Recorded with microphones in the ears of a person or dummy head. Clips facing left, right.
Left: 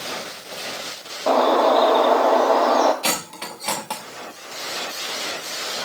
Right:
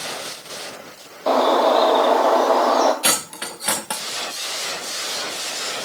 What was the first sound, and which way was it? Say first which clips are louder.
A bird: even; centre (ahead or behind).